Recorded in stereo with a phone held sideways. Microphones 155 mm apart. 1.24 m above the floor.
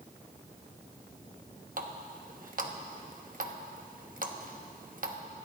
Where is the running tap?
60° right (ahead or behind), 1.1 m.